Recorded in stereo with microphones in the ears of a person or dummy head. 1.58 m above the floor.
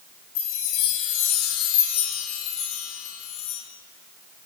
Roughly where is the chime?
Left.